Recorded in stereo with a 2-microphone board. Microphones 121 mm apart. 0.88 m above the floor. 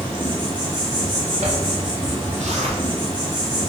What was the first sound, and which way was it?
An insect, 40° right (ahead or behind).